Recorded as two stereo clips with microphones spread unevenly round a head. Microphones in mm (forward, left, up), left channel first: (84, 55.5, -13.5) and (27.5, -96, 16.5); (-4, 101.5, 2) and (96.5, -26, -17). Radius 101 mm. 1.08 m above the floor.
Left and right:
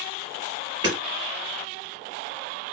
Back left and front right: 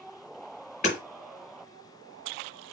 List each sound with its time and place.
0.8 s hammering: 175° right, 5 m